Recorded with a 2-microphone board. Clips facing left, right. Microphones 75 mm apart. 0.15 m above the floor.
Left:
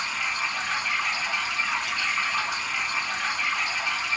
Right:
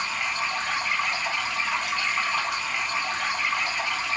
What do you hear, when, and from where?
0.0 s running water: 60° right (ahead or behind), 2.0 m